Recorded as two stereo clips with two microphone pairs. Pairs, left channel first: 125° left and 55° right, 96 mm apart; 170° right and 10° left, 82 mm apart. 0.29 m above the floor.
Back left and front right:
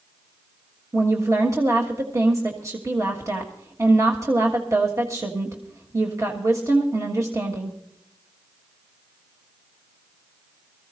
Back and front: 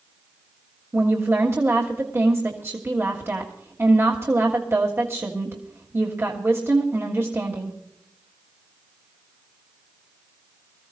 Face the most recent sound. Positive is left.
turn(degrees=-25)